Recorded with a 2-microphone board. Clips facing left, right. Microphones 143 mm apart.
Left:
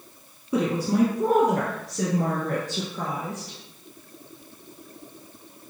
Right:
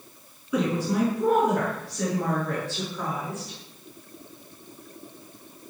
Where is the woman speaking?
35° left (ahead or behind), 1.3 m; by 3.6 s 45° left (ahead or behind), 2.5 m.